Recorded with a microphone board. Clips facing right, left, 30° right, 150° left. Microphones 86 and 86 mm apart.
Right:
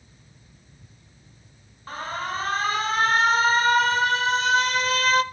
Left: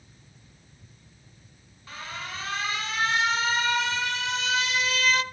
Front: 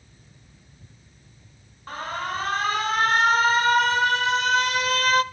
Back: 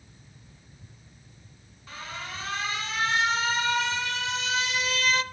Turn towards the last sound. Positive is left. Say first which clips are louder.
# right 8 dB, front 9 dB
turn(degrees=-55)